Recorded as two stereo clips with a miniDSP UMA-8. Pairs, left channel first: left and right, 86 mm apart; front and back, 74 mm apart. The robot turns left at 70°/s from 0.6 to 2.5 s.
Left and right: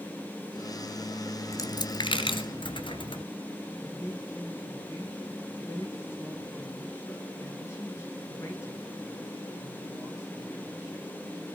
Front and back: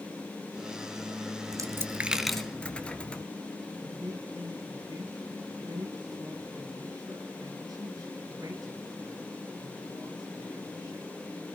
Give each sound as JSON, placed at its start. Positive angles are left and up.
{"t": 1.5, "sound": "a dropped coin", "azimuth_deg": 145, "distance_m": 1.6}
{"t": 3.8, "sound": "a man speaking", "azimuth_deg": 145, "distance_m": 6.5}